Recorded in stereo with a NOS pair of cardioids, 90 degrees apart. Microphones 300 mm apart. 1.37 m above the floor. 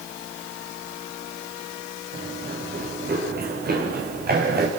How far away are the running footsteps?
About 6 m.